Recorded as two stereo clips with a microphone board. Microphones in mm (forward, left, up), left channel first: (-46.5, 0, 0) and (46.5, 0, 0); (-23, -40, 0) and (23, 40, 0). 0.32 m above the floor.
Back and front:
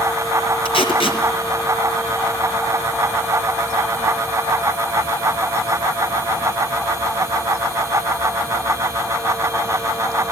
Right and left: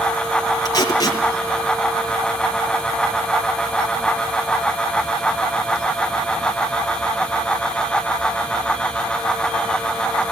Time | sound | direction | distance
0.7 | tape being pulled | 170° right | 5.5 m